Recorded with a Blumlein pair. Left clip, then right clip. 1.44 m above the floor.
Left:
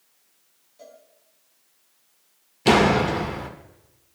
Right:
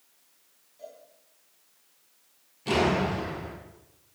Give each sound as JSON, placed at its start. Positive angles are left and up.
{"t": 0.8, "sound": "a cowbell", "azimuth_deg": 70, "distance_m": 6.0}
{"t": 2.6, "sound": "a door slam", "azimuth_deg": 50, "distance_m": 1.8}